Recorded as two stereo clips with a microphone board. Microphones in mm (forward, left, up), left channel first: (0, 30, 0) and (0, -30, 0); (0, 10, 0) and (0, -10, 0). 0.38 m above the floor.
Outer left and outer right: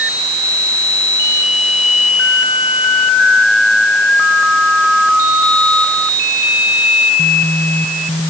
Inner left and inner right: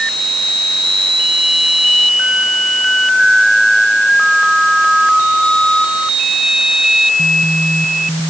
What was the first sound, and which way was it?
Only background noise.